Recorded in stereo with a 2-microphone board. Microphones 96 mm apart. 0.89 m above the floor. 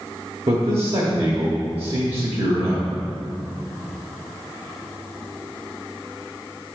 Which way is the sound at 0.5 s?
75° right (ahead or behind).